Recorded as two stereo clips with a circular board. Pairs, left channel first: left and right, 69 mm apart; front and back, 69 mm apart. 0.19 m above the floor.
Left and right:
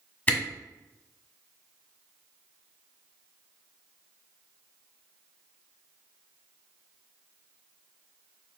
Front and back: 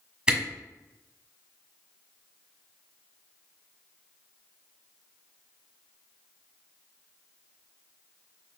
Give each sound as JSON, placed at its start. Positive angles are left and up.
{"t": 0.3, "sound": "a camera shutter", "azimuth_deg": 125, "distance_m": 1.5}